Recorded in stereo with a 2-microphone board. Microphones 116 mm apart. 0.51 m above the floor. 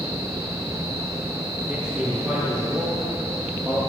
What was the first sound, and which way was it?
A man speaking, 20° right (ahead or behind).